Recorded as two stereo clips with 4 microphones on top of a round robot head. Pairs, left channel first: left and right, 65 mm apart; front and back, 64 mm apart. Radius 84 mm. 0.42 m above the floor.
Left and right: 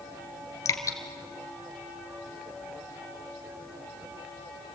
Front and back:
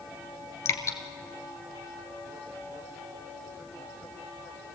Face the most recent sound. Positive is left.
turn(degrees=45)